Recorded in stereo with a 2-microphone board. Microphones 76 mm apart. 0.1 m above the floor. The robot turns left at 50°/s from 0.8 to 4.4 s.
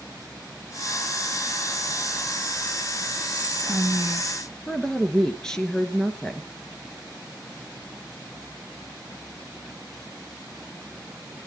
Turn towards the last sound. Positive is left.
turn(degrees=10)  # may be behind; listen again after turning